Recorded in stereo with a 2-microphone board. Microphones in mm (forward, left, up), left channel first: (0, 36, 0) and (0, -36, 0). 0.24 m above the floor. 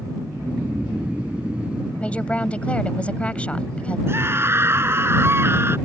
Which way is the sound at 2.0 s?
20° left (ahead or behind).